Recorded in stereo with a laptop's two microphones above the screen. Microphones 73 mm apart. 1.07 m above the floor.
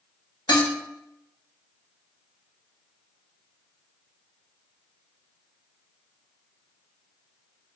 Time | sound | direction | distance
0.5 | dishes clattering | 70° left (ahead or behind) | 0.8 m